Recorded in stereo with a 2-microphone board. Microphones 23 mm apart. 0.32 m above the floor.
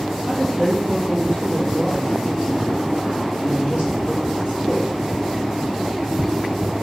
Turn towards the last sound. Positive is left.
turn(degrees=-55)  # may be behind; listen again after turning